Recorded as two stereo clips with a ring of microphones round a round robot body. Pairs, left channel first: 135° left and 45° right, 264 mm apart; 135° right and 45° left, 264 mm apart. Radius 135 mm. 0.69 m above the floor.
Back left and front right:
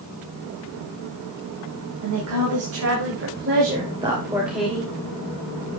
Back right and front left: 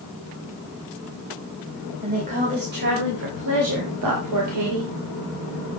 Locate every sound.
2.0 s a woman speaking: 20° right, 4 m; by 4.9 s 55° left, 2.5 m